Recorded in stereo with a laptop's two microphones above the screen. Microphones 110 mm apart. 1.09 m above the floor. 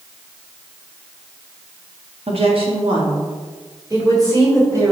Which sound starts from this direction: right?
A woman speaking, at 2.3 s.